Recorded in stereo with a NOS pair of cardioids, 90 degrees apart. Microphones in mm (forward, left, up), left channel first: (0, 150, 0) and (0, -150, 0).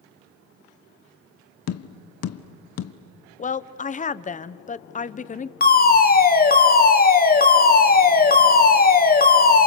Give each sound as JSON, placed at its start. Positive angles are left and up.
{"t": 1.7, "sound": "tapping", "azimuth_deg": 55, "distance_m": 1.1}
{"t": 3.4, "sound": "a woman speaking", "azimuth_deg": 25, "distance_m": 1.0}
{"t": 5.6, "sound": "a fire alarm", "azimuth_deg": 30, "distance_m": 2.5}